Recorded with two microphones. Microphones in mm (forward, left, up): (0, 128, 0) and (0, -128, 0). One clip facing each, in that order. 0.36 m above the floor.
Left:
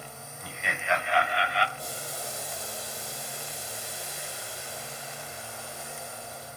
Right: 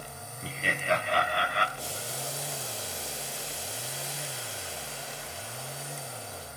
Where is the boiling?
80° right, 9.5 m.